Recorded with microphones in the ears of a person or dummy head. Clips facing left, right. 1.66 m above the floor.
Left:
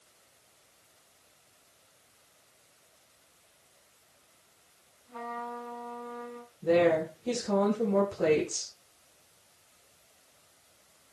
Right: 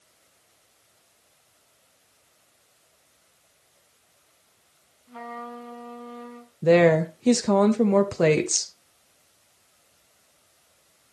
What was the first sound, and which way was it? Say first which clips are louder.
A trumpet: right 1 dB; 35° right (ahead or behind).